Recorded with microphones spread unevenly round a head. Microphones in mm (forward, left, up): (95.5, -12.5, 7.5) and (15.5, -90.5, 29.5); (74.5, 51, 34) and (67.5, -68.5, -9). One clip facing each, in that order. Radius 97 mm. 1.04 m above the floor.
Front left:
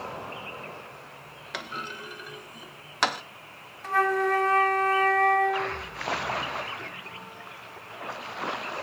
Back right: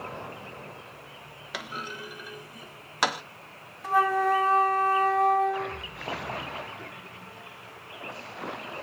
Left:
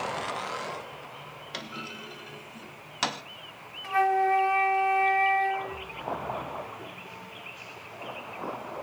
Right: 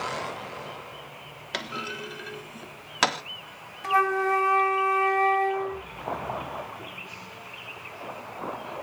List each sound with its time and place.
1.5 s a clunk: 55° right, 0.6 m
3.8 s a flute: 90° right, 0.6 m